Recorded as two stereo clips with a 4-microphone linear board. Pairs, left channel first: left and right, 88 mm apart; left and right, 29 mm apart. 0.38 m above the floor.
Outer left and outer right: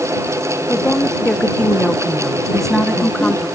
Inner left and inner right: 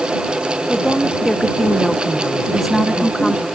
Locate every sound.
0.7 s a woman speaking: 15° left (ahead or behind); by 3.5 s 10° left (ahead or behind)
2.5 s a woman speaking: 5° left (ahead or behind)